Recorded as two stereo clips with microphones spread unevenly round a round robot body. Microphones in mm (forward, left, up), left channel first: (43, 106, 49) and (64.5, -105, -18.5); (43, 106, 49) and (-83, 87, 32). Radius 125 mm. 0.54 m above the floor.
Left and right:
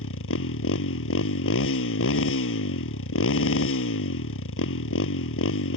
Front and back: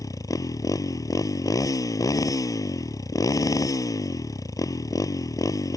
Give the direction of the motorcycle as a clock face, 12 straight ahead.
10 o'clock.